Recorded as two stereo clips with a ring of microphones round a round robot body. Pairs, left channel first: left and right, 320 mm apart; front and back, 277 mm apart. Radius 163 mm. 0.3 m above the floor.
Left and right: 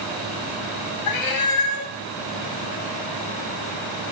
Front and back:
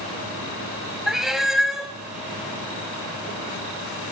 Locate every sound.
1.1 s a cat meowing: 90° left, 0.9 m